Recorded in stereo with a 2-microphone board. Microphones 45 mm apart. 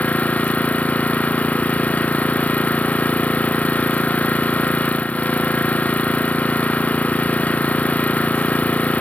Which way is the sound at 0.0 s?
35° left (ahead or behind).